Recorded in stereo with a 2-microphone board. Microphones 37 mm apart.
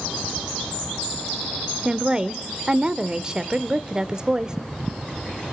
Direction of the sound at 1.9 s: 25° right (ahead or behind).